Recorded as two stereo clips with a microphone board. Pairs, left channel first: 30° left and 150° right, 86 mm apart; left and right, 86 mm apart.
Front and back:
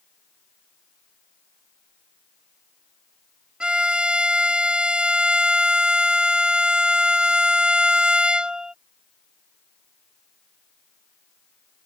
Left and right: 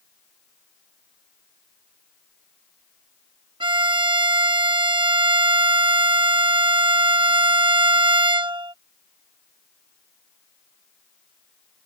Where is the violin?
70° right.